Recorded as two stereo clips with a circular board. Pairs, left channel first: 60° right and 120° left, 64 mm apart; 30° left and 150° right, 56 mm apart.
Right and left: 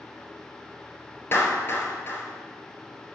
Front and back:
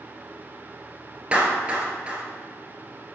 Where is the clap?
90° right, 1.4 m.